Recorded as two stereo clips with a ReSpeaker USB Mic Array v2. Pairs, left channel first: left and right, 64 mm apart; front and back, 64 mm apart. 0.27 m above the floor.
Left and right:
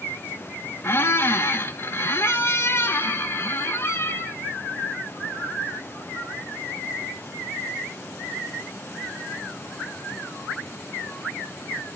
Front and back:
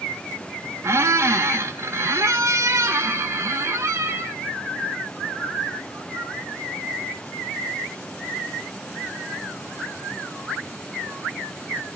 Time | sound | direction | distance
0.8 | a squeak | 140° left | 0.5 m